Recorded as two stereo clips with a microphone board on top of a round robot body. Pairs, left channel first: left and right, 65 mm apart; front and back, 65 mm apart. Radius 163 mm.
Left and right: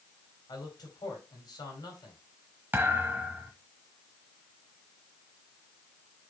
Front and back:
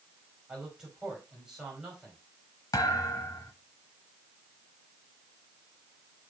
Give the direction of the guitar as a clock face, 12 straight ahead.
I don't hear a guitar.